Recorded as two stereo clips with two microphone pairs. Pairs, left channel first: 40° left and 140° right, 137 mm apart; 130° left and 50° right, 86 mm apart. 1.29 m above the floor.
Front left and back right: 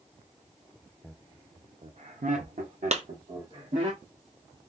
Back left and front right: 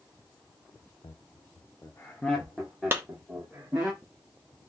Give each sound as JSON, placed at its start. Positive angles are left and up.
{"t": 1.0, "sound": "laughter", "azimuth_deg": 125, "distance_m": 0.6}
{"t": 2.9, "sound": "a clap", "azimuth_deg": -110, "distance_m": 0.6}